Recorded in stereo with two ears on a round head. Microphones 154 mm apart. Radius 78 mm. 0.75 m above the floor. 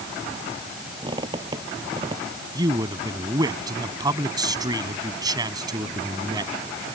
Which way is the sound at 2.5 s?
25° right (ahead or behind).